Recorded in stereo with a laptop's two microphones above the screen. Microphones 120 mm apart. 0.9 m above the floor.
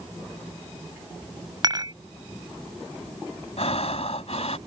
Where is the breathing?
65° left (ahead or behind).